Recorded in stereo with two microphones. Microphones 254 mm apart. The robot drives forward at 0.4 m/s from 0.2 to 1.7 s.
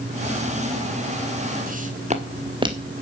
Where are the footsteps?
35° right (ahead or behind), 2.5 m; by 2.9 s 15° right (ahead or behind), 2.5 m.